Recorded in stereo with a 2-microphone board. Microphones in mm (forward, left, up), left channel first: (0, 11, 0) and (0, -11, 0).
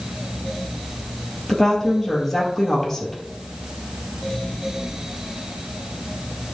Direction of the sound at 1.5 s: 15° left (ahead or behind).